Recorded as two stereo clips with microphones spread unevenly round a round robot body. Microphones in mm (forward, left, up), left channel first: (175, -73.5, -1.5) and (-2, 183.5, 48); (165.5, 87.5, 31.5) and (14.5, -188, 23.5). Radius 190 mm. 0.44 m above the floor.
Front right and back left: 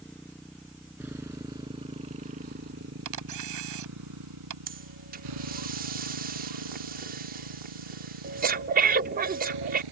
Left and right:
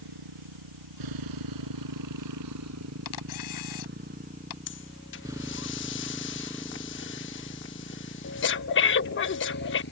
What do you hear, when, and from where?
0.0 s a motorcycle: 140° right; by 9.9 s 125° left
3.0 s a camera shutter: 95° left
4.7 s breathing: 65° left